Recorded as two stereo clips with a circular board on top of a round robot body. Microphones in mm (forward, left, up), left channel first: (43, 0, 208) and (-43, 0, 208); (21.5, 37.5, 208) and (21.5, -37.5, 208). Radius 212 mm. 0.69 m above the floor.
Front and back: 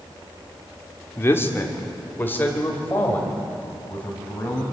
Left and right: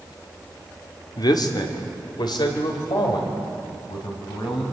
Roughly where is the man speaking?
Ahead left.